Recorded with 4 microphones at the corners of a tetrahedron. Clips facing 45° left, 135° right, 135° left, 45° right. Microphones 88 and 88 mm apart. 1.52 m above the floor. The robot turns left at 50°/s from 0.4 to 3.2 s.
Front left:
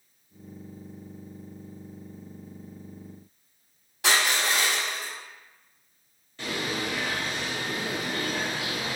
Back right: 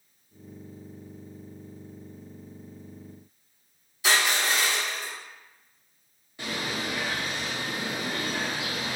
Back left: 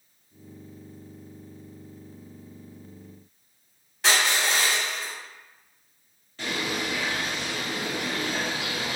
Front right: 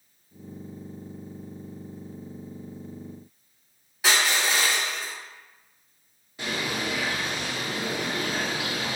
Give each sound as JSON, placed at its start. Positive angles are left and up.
{"t": 4.0, "sound": "crushing", "azimuth_deg": 40, "distance_m": 1.5}
{"t": 6.4, "sound": "a bird", "azimuth_deg": -95, "distance_m": 1.0}